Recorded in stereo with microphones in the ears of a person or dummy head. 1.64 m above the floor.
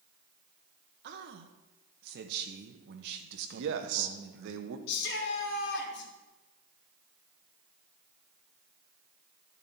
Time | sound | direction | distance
1.0 | a man speaking | 60° right (ahead or behind) | 1.1 m
3.5 | a man speaking | 65° right (ahead or behind) | 1.1 m
4.9 | a shout | 65° left (ahead or behind) | 2.5 m